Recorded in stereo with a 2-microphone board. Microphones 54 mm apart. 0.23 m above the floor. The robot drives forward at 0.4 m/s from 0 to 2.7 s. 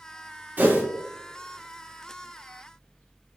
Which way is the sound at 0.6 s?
30° right (ahead or behind).